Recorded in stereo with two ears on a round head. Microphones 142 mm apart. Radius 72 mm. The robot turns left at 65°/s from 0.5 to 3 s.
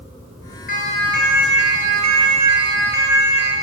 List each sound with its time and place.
0.7 s a siren: 55° left (ahead or behind), 7 m; by 3.5 s 80° right, 9 m